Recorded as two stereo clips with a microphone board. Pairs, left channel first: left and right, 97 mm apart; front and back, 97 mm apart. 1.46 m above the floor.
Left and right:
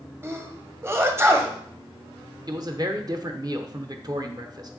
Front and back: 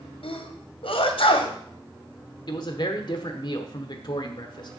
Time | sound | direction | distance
0.2 | a sneeze | 25° right | 1.1 m
2.5 | a man speaking | 40° right | 1.0 m